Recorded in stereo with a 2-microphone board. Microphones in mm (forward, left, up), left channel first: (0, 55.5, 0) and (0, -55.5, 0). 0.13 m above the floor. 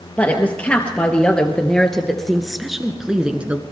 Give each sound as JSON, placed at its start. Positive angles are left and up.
{"t": 0.2, "sound": "a woman speaking", "side_deg": 15, "distance_m": 3.0}